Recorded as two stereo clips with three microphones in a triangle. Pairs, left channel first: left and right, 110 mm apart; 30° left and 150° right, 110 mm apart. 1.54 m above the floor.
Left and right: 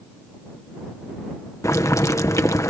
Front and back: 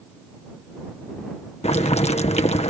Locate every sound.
1.6 s boiling: 30° left